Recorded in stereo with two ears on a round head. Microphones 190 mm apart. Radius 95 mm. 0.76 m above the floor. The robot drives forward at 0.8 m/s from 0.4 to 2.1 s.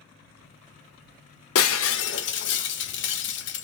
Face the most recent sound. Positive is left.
turn(degrees=60)  # may be behind; listen again after turning